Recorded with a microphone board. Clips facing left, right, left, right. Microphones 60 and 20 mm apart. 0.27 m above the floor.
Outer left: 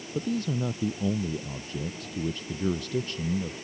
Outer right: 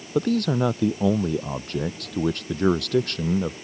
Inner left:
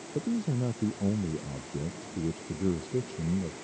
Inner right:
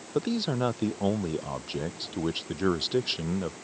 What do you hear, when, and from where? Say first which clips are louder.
0.1 s a man speaking: outer right 8 dB, inner right 3 dB; 75° right (ahead or behind)